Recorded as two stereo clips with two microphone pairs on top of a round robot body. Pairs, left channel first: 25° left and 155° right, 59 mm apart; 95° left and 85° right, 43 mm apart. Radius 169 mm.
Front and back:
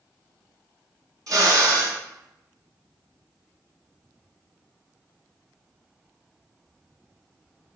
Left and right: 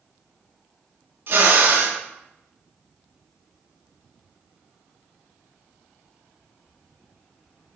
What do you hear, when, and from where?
1.3 s a drill: 120° right, 3 m